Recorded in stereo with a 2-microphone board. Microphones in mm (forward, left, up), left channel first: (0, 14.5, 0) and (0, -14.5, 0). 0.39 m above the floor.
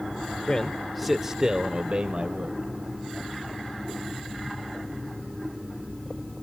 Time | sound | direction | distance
0.5 | a man speaking | 25° left (ahead or behind) | 0.9 m